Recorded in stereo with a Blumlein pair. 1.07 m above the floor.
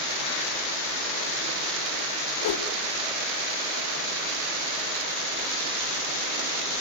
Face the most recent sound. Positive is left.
turn(degrees=55)